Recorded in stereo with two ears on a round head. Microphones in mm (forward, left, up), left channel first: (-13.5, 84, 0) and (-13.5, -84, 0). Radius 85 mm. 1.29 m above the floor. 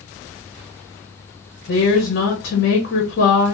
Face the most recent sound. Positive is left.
turn(degrees=70)  # may be behind; listen again after turning